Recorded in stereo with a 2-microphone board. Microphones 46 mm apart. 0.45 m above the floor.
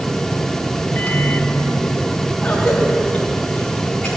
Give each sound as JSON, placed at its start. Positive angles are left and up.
{"t": 0.9, "sound": "a microwave", "side_deg": 45, "distance_m": 0.7}
{"t": 2.4, "sound": "a cough", "side_deg": 25, "distance_m": 2.5}